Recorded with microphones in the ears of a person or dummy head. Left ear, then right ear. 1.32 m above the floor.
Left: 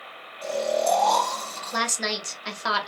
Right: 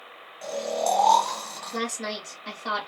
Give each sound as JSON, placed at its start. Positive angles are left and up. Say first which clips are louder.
{"t": 0.4, "sound": "snoring", "louder": "left 3 dB", "side_deg": -30, "distance_m": 1.1}
{"t": 1.7, "sound": "a woman speaking", "louder": "left 5 dB", "side_deg": 55, "distance_m": 1.1}